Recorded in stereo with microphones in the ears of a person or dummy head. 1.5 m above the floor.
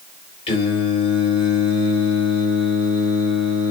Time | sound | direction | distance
0.5 | singing | 30° left (ahead or behind) | 6.5 m